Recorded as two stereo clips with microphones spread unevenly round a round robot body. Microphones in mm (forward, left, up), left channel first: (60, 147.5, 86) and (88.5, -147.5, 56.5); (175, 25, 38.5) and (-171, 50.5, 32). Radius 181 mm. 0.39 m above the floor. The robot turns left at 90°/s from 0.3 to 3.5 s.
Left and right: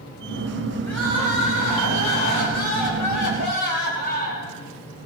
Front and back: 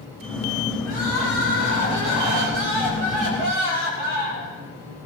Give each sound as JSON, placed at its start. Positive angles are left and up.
{"t": 0.8, "sound": "crying", "azimuth_deg": 15, "distance_m": 8.0}